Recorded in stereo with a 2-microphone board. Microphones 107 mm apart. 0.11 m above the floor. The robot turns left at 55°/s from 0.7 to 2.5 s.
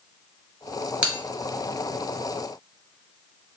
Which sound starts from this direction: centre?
A bell, at 1.0 s.